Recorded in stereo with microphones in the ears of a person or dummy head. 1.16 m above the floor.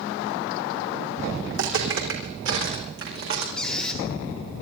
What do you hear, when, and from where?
1.5 s footsteps: 70° right (ahead or behind), 4.5 m
3.6 s a squeak: 5° left (ahead or behind), 2.5 m